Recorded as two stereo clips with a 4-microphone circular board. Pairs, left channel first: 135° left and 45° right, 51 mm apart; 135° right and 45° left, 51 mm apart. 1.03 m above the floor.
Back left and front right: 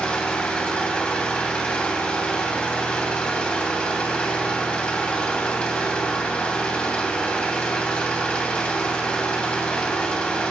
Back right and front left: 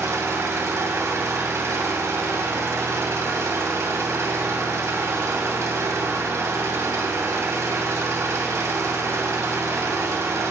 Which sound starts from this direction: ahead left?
An engine running, at 0.0 s.